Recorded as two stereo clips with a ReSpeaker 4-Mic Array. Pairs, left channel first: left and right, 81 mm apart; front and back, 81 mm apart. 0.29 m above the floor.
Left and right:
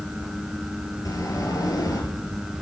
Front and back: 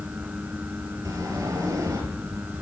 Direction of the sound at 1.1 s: 135° left.